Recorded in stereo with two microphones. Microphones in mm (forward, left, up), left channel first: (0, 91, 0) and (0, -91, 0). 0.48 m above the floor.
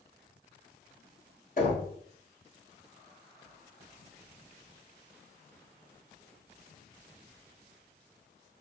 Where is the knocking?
50° left (ahead or behind), 1.5 m.